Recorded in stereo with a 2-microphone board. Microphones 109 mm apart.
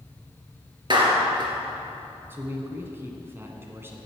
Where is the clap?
45° right (ahead or behind), 2 m.